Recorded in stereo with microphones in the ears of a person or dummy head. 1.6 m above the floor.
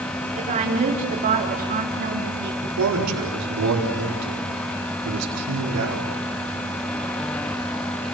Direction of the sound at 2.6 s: 90° right.